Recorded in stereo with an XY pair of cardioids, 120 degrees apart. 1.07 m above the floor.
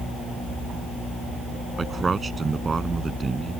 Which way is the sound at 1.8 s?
25° right.